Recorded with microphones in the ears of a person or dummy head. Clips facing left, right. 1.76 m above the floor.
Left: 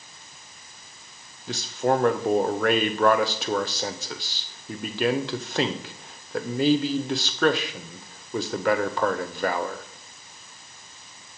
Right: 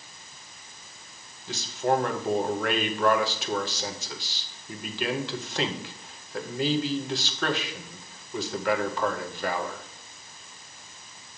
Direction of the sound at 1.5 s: 45° left (ahead or behind).